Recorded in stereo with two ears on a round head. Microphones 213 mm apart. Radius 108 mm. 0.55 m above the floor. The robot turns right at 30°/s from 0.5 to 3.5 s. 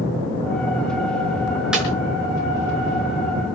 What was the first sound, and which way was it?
A snare drum, 5° right (ahead or behind).